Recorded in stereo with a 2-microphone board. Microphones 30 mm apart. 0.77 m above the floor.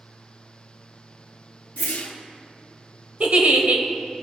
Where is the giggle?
65° right (ahead or behind), 0.9 m.